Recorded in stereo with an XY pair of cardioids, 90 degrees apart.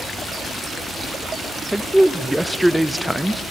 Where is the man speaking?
10° right, 0.6 m.